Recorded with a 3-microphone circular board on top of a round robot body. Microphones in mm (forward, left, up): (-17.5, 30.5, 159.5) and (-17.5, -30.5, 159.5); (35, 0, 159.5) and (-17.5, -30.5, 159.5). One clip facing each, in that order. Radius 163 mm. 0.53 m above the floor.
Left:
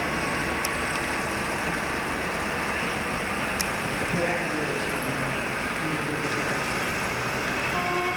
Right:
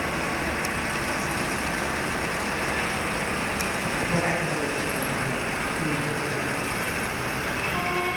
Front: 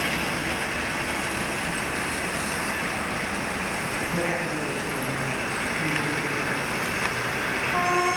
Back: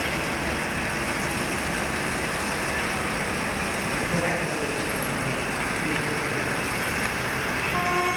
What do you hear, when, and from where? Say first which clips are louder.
4.1 s a woman speaking: right 1 dB, even; 60° right, 5.5 m; by 6.7 s 35° right, 7 m